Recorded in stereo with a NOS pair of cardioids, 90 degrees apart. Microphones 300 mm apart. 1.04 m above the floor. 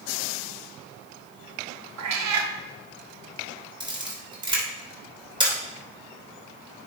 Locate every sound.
2.0 s a cat meowing: 65° right, 1.1 m
3.8 s a camera shutter: 15° right, 3.5 m